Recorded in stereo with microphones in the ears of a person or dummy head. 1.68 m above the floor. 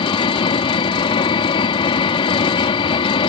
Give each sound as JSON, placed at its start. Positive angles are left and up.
{"t": 0.0, "sound": "an engine running", "side_deg": 25}